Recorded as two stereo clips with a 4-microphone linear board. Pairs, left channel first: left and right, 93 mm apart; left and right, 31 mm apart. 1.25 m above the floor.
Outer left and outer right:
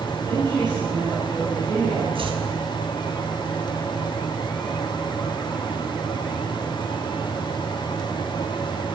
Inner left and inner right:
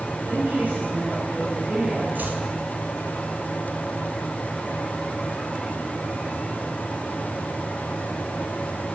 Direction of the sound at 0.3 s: 55° right (ahead or behind).